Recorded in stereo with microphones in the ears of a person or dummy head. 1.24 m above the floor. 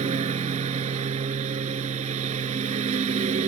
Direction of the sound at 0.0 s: 35° right (ahead or behind).